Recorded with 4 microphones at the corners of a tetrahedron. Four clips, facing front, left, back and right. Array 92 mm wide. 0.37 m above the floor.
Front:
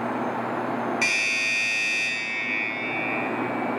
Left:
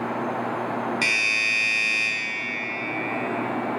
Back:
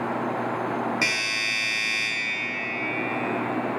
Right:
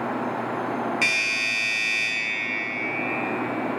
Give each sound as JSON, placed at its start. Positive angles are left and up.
{"t": 1.0, "sound": "a doorbell", "azimuth_deg": 155, "distance_m": 1.2}